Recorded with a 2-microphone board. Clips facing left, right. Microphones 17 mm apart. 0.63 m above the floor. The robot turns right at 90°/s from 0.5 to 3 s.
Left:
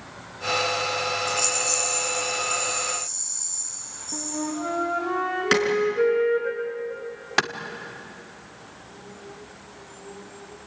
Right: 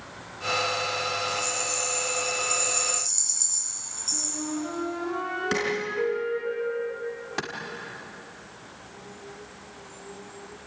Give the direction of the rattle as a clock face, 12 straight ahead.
9 o'clock.